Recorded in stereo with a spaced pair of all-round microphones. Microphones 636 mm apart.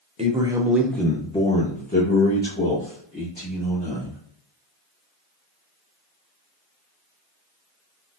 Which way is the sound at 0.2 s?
10° right (ahead or behind).